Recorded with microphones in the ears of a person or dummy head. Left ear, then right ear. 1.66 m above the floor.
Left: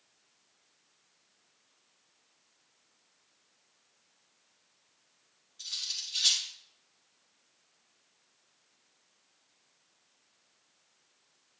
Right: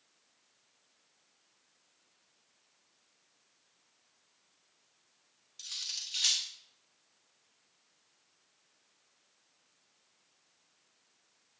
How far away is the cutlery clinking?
About 1.4 m.